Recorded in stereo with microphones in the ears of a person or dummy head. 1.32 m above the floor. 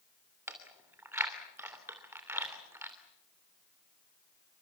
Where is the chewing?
10° right (ahead or behind), 3 m.